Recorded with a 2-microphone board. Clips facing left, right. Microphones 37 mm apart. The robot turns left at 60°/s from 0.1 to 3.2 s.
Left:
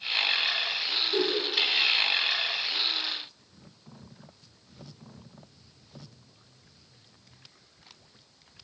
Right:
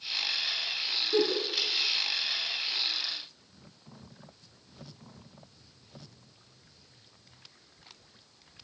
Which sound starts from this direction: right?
A giggle, at 1.1 s.